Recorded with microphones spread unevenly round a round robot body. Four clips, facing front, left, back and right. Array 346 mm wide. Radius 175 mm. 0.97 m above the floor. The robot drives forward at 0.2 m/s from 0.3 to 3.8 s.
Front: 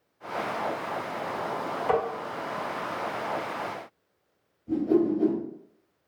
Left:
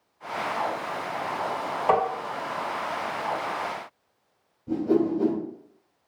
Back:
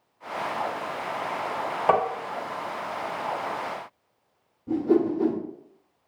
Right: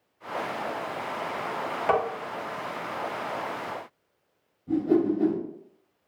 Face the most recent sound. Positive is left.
turn(degrees=175)